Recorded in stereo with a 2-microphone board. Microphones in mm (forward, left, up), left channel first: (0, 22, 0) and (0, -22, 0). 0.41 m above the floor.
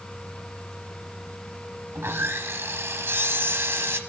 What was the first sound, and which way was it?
Sawing, 75° right (ahead or behind).